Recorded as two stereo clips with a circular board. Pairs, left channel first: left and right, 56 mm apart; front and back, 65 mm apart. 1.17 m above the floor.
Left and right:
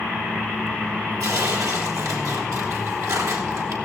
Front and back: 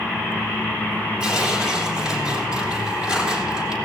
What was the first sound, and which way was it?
Tearing paper, 100° right.